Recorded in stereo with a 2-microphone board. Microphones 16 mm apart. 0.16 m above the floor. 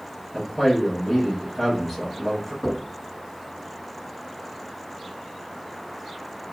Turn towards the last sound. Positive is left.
turn(degrees=20)  # may be behind; listen again after turning